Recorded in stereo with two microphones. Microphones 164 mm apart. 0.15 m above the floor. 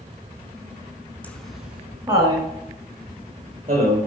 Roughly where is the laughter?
Centre.